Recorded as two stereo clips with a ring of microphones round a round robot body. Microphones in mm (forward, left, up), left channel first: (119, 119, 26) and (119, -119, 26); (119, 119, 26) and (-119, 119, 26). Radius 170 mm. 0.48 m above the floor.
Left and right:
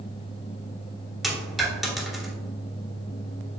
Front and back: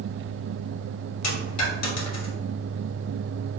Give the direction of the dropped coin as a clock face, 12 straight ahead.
12 o'clock.